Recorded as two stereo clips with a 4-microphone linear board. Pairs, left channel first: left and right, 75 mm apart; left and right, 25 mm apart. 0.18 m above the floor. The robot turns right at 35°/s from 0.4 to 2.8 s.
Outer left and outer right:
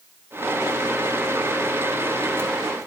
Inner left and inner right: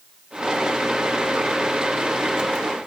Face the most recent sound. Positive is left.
No sound to turn to.